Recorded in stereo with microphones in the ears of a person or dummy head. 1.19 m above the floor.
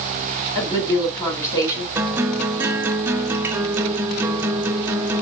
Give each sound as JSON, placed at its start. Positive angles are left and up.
{"t": 0.6, "sound": "a woman speaking", "side_deg": 20, "distance_m": 3.5}
{"t": 1.9, "sound": "a guitar", "side_deg": -10, "distance_m": 0.8}